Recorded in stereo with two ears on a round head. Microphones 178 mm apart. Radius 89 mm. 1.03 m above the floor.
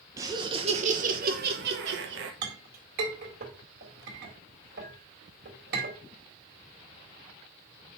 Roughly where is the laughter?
Centre.